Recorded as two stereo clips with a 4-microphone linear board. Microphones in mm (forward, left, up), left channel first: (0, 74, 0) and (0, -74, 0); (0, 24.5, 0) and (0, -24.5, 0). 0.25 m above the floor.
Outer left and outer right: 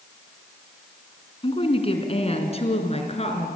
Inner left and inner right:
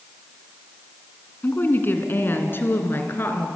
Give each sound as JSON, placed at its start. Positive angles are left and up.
{"t": 1.4, "sound": "a woman speaking", "side_deg": 40, "distance_m": 2.5}